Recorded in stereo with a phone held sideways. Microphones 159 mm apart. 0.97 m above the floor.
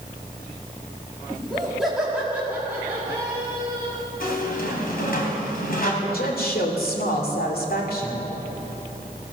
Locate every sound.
1.3 s laughter: 5° left (ahead or behind), 2 m; by 4.0 s 30° right (ahead or behind), 2.5 m
4.2 s a squeak: 65° left (ahead or behind), 3 m
6.0 s a woman speaking: 70° left (ahead or behind), 2.5 m